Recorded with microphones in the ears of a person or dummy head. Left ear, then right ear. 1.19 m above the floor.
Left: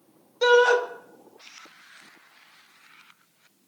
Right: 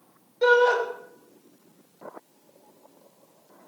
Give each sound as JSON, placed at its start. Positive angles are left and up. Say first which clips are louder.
{"t": 0.4, "sound": "a shout", "louder": "left 1 dB", "side_deg": 40, "distance_m": 1.1}